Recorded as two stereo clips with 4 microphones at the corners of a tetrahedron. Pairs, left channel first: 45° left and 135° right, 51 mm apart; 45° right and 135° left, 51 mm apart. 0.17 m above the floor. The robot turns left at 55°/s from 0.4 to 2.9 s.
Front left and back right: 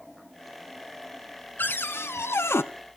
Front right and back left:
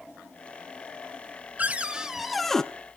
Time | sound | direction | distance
1.6 | a cupboard door | 85° left | 0.8 m